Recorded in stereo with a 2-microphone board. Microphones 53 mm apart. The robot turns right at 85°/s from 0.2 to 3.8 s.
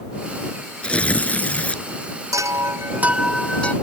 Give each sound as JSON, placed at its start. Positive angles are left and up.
{"t": 0.8, "sound": "tearing paper", "side_deg": 20}
{"t": 2.3, "sound": "a chime", "azimuth_deg": -90}